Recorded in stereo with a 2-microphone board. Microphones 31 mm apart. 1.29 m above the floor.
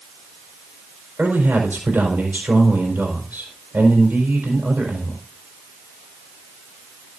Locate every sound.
1.2 s a man speaking: 80° right, 4.5 m